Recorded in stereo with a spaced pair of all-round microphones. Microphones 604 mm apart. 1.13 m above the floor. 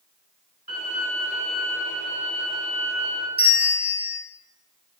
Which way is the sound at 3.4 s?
30° right (ahead or behind).